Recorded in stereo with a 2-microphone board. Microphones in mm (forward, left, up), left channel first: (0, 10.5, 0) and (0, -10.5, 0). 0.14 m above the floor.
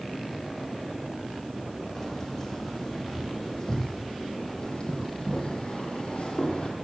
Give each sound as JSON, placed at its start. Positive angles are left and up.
{"t": 1.9, "sound": "keys jangling", "side_deg": 10, "distance_m": 4.0}